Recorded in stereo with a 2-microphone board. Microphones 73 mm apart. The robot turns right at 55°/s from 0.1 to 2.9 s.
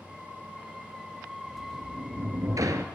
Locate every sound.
1.5 s a sliding door: 130° right, 0.7 m; by 2.9 s 55° right, 0.7 m